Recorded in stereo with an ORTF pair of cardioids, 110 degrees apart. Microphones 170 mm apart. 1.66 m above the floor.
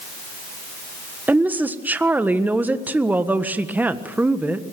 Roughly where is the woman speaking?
Ahead.